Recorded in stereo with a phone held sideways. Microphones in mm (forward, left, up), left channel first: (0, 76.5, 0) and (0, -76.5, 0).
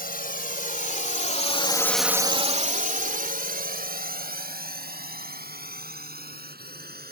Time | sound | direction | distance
0.0 | a drone | 70° left (ahead or behind) | ?